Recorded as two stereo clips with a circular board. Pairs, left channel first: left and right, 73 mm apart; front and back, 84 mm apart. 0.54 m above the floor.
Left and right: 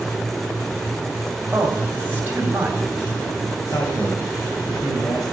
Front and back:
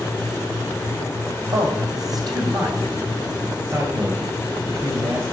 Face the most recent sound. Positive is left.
turn(degrees=120)